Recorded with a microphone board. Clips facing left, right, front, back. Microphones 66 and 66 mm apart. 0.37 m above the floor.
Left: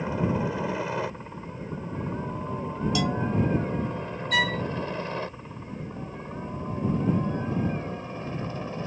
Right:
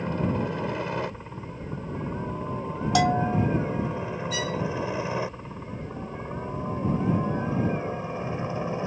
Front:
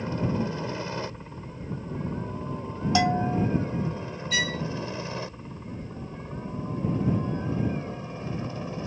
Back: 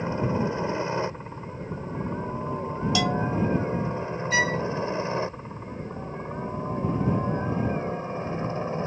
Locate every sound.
0.0 s a helicopter: 165° left; by 8.9 s 150° right
3.0 s a bell: 60° right
4.3 s a violin: 120° left